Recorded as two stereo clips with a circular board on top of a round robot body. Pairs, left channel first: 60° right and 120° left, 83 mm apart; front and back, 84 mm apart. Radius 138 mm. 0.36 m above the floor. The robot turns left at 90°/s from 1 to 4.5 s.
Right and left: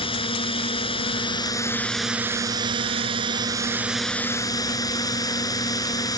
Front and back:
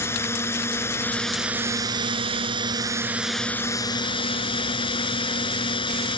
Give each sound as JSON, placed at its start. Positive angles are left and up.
{"t": 0.0, "sound": "a drone", "azimuth_deg": -60}